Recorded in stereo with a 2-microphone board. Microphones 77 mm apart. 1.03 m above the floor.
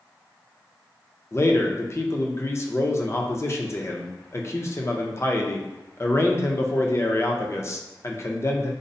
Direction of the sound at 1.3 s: 35° left (ahead or behind).